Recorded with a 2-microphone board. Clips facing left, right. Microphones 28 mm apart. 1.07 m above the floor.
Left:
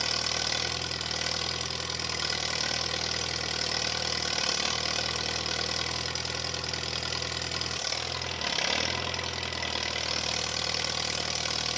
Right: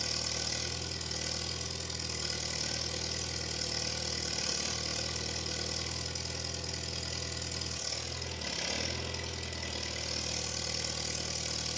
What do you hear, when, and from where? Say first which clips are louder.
0.0 s an engine running: left 7 dB; 50° left (ahead or behind), 0.9 m